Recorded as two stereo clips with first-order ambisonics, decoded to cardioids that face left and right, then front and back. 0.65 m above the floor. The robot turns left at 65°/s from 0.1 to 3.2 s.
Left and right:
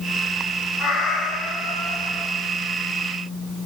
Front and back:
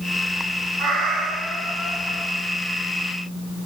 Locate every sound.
0.8 s a cat meowing: 145° left, 1.3 m; by 2.3 s 50° left, 1.3 m